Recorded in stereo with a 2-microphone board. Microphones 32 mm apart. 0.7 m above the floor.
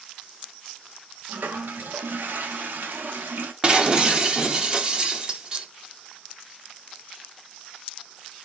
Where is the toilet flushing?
80° right, 0.5 m.